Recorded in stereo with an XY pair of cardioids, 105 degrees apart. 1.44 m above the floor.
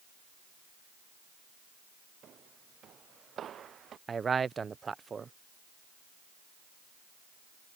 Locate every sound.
2.2 s footsteps: 55° right; by 4.0 s 50° right
4.1 s a man speaking: 35° right